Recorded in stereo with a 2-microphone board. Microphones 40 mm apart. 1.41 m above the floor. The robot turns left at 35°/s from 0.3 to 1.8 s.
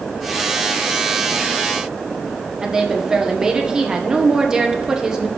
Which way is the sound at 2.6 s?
15° right (ahead or behind).